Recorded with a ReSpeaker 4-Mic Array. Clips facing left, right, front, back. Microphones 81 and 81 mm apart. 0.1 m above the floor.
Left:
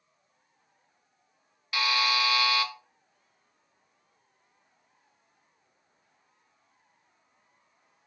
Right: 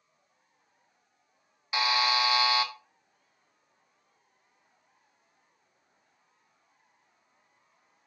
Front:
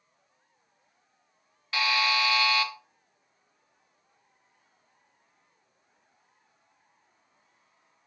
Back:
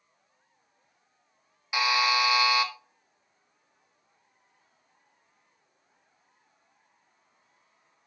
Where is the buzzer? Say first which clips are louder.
Right 1 dB, back 2 dB; 120° right, 0.7 m.